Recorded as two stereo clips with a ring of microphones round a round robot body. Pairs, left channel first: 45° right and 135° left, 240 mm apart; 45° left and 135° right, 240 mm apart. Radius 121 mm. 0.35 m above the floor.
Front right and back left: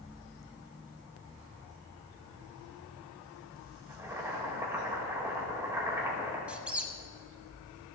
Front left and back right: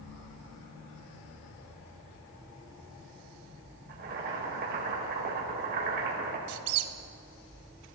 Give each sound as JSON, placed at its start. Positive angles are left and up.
{"t": 3.9, "sound": "boiling", "azimuth_deg": -150, "distance_m": 1.6}
{"t": 6.5, "sound": "a squeak", "azimuth_deg": -140, "distance_m": 0.6}